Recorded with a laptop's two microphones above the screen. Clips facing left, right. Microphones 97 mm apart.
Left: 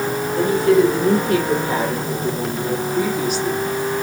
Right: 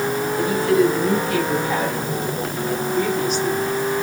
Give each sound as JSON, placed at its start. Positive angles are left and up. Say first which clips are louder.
{"t": 0.4, "sound": "a woman speaking", "louder": "left 4 dB", "side_deg": 70, "distance_m": 4.0}